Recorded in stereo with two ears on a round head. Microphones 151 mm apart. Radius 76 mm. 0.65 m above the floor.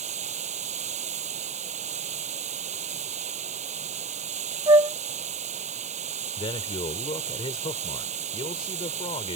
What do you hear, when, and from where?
0.0 s running water: 45° right (ahead or behind)
4.7 s a flute: 25° right (ahead or behind)
6.4 s a man speaking: 30° left (ahead or behind)